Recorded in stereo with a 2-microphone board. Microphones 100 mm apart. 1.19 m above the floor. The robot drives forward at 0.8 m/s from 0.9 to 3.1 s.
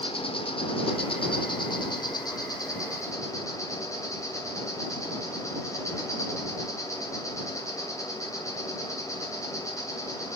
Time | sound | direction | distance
0.0 | an insect | 65° left (ahead or behind) | 1.5 m